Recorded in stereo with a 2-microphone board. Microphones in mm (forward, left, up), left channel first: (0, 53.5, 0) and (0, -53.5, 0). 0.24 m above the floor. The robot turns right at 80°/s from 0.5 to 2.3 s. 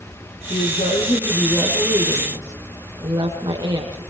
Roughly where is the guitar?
No guitar in this recording.